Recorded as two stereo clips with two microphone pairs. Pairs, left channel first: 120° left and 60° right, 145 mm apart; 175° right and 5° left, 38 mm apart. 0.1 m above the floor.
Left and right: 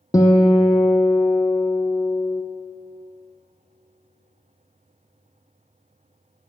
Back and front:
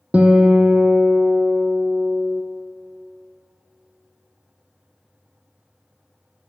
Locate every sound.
0.1 s a guitar: 55° left, 1.0 m